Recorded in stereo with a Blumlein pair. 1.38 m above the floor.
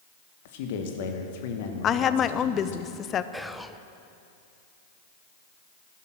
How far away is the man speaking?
About 1.8 m.